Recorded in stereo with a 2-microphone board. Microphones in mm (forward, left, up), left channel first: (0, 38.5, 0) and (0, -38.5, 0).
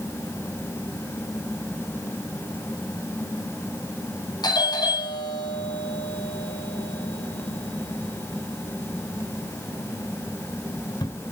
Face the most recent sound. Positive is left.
turn(degrees=65)  # may be behind; listen again after turning